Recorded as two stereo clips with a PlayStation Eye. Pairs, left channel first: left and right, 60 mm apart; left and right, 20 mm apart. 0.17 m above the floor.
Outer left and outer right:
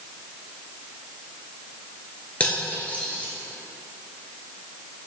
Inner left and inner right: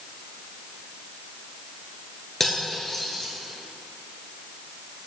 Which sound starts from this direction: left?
Cutlery clinking, at 2.4 s.